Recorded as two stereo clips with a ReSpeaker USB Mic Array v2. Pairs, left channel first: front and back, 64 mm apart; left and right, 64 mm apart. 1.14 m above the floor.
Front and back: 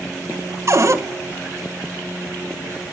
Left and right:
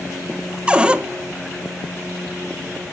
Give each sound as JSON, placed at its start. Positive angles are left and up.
{"t": 0.7, "sound": "a cupboard door", "azimuth_deg": -160, "distance_m": 1.3}